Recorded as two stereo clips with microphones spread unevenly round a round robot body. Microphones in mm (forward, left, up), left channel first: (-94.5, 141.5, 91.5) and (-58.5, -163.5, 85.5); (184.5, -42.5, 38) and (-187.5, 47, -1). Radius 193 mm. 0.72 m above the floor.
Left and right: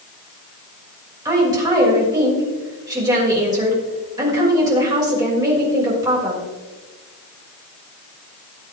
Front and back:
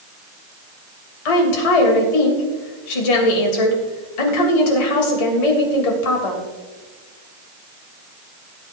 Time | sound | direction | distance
1.2 | a woman speaking | 5° right | 3 m